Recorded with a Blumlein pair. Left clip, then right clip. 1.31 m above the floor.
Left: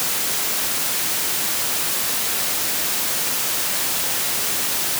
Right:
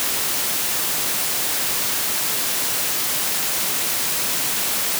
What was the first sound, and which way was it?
Only background noise.